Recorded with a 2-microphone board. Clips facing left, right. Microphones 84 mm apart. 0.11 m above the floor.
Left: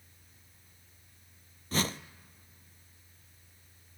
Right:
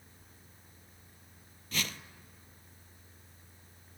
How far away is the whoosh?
About 0.5 m.